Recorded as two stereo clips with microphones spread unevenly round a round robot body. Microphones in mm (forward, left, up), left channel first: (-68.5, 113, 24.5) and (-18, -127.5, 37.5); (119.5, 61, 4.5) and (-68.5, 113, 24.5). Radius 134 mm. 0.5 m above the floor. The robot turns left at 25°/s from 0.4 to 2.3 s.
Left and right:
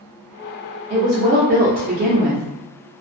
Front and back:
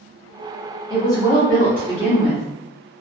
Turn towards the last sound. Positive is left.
turn(degrees=-85)